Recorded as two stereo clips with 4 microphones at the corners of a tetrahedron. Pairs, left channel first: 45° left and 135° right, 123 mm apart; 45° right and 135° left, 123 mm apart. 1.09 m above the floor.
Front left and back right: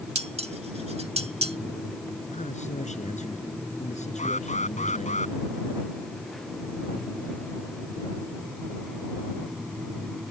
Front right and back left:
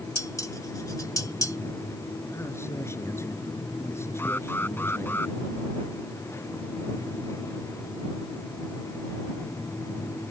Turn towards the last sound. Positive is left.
turn(degrees=30)